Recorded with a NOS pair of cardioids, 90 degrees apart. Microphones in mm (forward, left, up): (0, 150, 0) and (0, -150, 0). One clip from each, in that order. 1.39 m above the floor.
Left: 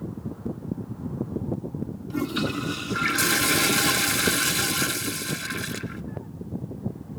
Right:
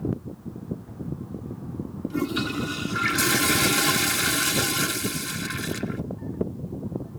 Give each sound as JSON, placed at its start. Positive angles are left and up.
{"t": 2.1, "sound": "a toilet flushing", "azimuth_deg": 5, "distance_m": 0.5}